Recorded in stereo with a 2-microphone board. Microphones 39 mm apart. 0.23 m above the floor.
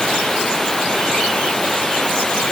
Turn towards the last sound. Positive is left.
turn(degrees=10)  # may be behind; listen again after turning